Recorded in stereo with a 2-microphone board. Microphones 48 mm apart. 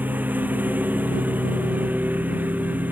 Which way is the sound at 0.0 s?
40° right (ahead or behind).